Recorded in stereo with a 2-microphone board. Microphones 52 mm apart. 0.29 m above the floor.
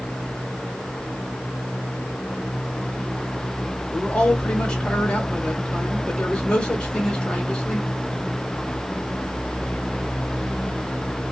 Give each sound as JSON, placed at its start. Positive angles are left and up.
{"t": 3.9, "sound": "a man speaking", "side_deg": 20, "distance_m": 1.8}